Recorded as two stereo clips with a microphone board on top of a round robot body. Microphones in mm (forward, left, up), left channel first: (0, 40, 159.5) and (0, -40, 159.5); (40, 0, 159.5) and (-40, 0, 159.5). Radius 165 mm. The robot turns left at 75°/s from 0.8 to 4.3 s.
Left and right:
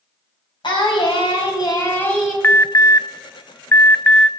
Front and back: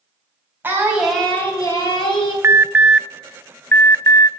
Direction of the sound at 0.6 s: 115° left.